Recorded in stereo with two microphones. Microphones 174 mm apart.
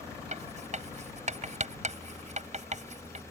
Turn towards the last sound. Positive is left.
turn(degrees=-45)  # may be behind; listen again after turning